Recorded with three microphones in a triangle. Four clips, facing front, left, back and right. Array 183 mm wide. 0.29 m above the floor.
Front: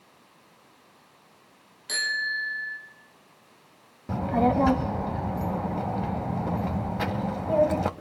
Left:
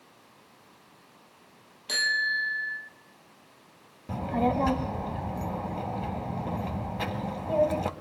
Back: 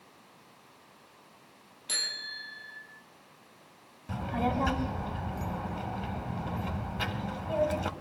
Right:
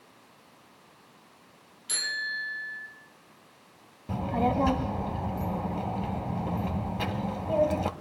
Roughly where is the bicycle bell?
Left.